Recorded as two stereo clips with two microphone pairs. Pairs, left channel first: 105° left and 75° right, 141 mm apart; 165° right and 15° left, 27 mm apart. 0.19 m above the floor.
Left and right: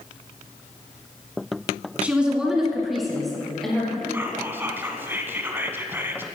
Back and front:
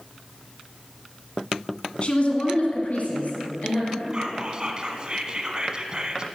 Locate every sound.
2.0 s a woman speaking: 150° right, 1.3 m; by 4.0 s 165° right, 3 m
4.1 s whispering: 10° right, 1.4 m